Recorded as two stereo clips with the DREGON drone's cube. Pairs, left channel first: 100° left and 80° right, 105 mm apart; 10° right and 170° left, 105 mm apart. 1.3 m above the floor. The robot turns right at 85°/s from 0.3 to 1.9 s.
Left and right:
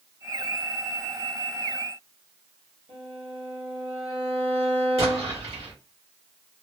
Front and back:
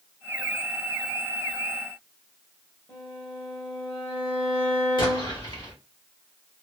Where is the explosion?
55° right, 1.4 m.